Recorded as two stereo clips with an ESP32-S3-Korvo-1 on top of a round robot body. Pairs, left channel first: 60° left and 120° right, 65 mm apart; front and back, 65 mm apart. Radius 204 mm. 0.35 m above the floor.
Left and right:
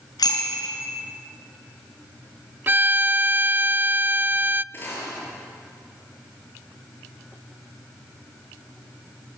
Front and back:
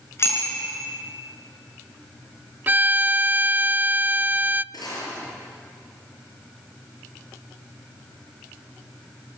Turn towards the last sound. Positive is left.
turn(degrees=0)